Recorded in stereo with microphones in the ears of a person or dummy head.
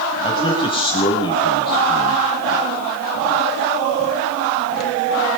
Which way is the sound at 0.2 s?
30° left (ahead or behind).